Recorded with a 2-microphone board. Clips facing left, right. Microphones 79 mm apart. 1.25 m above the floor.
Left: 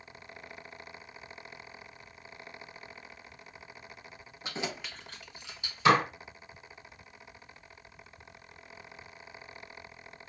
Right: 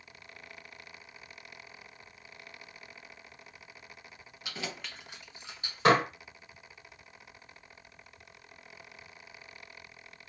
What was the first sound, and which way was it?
Keys jangling, 35° left (ahead or behind).